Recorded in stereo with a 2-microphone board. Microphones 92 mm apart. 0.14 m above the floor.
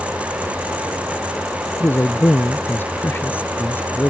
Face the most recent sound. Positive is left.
turn(degrees=25)  # may be behind; listen again after turning